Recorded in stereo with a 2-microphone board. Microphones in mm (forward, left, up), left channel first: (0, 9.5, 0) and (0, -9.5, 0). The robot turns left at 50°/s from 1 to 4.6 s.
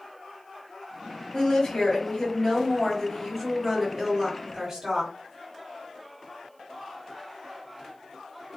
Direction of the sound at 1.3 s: 105° left.